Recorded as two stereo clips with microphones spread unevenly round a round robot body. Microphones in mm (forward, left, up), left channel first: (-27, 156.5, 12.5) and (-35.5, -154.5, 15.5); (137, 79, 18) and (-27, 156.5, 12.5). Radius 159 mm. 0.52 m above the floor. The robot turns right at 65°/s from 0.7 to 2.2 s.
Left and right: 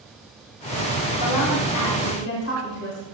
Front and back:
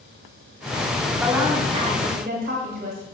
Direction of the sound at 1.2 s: 65° left.